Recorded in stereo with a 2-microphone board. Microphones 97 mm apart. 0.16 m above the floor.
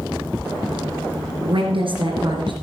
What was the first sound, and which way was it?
A woman speaking, 65° right (ahead or behind).